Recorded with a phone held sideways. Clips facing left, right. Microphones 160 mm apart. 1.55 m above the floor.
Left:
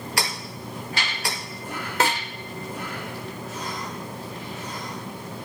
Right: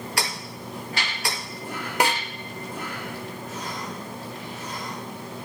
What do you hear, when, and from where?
2.0 s a snare drum: 15° right (ahead or behind), 1.8 m